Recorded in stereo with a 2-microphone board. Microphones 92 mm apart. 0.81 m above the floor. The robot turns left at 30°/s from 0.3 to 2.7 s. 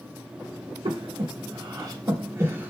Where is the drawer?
No drawer in this recording.